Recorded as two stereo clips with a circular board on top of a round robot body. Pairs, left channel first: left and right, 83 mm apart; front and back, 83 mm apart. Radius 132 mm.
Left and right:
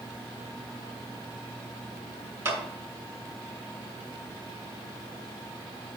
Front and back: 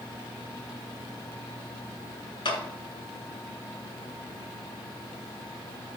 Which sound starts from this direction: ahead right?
A clap, at 2.5 s.